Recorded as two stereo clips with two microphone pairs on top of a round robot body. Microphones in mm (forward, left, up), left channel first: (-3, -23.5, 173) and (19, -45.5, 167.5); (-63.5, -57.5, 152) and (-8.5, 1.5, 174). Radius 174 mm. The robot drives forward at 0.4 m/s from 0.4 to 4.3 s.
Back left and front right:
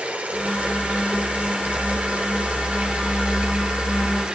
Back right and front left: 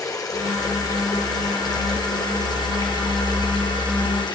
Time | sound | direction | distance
0.0 | running water | 85° right | 5 m